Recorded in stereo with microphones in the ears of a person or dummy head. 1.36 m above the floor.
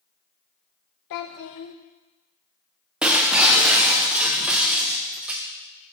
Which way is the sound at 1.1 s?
60° left (ahead or behind).